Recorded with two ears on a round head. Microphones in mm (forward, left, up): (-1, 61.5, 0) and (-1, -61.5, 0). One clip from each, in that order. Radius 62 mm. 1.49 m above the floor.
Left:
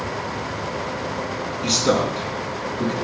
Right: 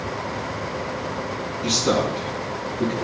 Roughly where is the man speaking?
Left.